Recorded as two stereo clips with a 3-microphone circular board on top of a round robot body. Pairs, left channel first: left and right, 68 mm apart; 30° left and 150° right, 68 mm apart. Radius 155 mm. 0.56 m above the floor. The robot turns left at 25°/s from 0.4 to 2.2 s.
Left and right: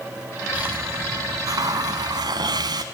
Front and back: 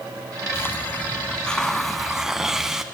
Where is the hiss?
25° right, 0.9 m; by 2.8 s 65° right, 0.9 m.